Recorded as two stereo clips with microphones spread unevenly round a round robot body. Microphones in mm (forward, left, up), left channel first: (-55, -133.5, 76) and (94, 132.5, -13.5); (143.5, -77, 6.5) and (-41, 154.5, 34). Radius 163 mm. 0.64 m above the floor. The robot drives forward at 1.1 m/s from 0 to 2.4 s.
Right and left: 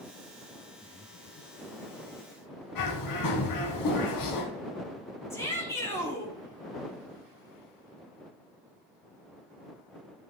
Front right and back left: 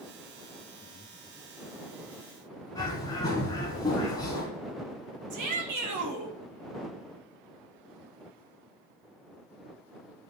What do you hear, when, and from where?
0.8 s breathing: 20° right, 0.7 m; by 1.8 s 165° right, 0.8 m
2.8 s a bird: 130° right, 1.0 m
5.3 s a shout: 150° left, 1.4 m